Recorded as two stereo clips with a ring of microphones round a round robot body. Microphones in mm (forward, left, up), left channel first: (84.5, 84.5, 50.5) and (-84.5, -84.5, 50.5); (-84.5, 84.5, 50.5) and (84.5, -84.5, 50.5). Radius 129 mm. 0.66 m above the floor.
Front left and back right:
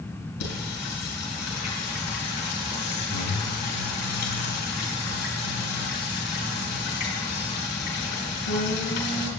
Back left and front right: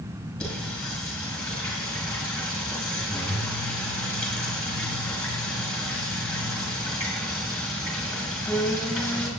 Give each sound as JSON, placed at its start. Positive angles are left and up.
{"t": 0.4, "sound": "singing", "azimuth_deg": 50, "distance_m": 4.0}